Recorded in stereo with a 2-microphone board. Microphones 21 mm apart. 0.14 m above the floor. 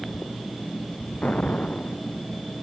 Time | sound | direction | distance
1.2 | an explosion | 85° left | ?